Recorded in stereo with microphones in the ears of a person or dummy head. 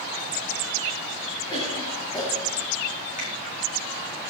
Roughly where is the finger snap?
Left.